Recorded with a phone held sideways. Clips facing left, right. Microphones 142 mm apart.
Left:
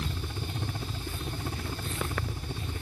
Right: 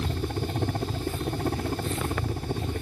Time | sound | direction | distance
0.0 | a helicopter | 55° right (ahead or behind) | ?